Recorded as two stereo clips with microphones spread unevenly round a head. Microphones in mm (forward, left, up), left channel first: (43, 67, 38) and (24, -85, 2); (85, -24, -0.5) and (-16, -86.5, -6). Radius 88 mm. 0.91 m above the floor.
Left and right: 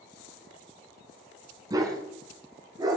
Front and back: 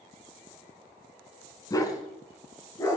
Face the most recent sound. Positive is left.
turn(degrees=-30)